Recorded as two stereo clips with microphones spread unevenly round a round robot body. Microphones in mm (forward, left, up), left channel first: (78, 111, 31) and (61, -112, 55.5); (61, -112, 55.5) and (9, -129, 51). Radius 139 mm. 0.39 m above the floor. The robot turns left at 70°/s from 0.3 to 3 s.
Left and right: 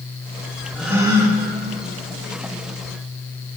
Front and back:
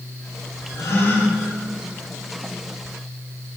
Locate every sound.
0.8 s a gasp: straight ahead, 7.5 m; by 1.4 s 40° right, 7.5 m